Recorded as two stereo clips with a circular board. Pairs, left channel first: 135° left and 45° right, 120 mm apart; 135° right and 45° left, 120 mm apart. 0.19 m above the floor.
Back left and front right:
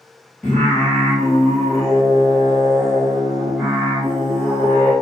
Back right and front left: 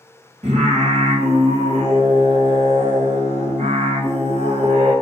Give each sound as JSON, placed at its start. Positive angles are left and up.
{"t": 0.4, "sound": "singing", "azimuth_deg": 55, "distance_m": 1.0}